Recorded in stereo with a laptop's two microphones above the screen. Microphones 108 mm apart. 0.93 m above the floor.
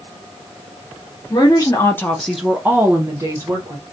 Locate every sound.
1.3 s a woman speaking: 40° left (ahead or behind), 0.8 m; by 3.8 s 35° right (ahead or behind), 1.3 m